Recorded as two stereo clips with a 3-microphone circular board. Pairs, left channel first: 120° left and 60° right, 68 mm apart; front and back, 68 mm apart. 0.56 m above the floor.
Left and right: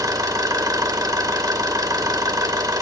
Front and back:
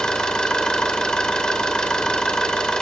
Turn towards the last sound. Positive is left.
turn(degrees=-80)